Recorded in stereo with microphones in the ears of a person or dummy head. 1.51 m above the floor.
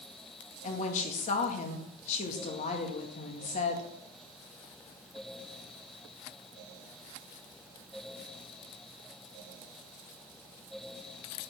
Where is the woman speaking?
45° left (ahead or behind), 1.9 m.